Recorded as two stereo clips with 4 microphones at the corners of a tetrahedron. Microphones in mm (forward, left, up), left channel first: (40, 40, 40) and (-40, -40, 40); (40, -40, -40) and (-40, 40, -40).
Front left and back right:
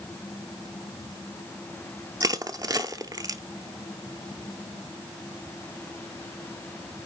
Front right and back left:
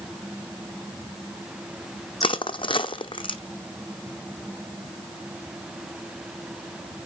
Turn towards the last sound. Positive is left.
turn(degrees=-80)